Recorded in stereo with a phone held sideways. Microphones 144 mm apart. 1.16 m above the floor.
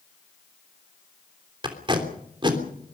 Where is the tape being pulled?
35° right (ahead or behind), 3 m.